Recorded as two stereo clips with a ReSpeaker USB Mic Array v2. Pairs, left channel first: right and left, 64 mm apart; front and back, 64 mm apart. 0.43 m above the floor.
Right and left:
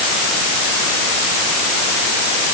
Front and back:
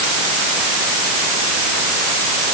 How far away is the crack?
No crack in this recording.